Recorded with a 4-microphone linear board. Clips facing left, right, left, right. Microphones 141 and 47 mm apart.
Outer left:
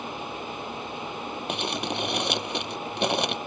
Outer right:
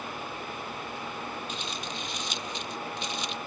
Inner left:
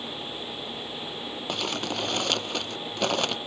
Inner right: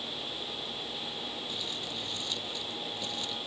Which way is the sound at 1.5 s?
65° left (ahead or behind).